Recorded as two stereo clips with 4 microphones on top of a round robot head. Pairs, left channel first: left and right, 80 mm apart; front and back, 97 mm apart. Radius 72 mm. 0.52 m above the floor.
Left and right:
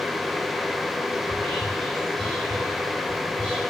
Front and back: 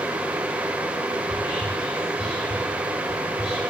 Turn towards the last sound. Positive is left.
turn(degrees=-100)